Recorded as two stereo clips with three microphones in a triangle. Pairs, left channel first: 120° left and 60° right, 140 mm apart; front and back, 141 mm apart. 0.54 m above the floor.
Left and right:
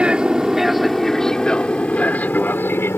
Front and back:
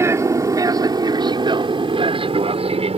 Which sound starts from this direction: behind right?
An aircraft, at 0.0 s.